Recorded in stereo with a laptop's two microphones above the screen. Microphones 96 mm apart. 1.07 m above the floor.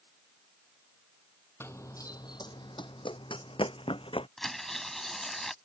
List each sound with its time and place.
1.6 s running footsteps: 25° left (ahead or behind); by 4.3 s 70° left (ahead or behind)
4.4 s tearing paper: 5° left (ahead or behind)